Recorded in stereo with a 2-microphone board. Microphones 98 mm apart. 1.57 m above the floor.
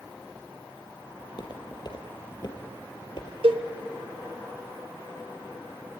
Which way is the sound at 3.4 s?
70° right (ahead or behind).